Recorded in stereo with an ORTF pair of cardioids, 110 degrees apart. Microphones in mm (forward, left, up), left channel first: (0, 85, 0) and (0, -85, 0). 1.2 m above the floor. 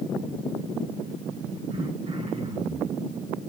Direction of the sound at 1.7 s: 40° right.